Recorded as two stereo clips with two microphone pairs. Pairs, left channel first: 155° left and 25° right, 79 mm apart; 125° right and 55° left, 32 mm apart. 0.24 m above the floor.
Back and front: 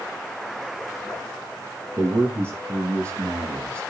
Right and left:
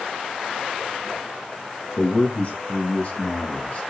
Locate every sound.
2.0 s a man speaking: 95° right, 4.5 m; by 3.8 s 90° right, 6 m